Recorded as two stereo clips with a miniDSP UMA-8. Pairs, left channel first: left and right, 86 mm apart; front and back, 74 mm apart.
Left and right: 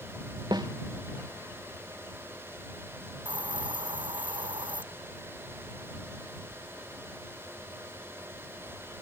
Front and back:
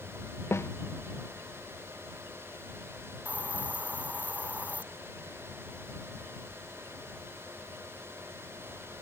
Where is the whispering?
No whispering in this recording.